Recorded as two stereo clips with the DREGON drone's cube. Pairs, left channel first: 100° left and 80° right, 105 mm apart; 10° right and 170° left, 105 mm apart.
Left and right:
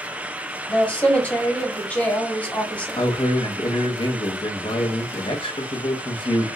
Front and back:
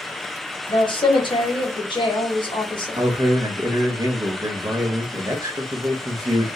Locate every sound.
0.7 s a woman speaking: 25° left, 0.9 m
3.0 s a man speaking: 125° left, 0.6 m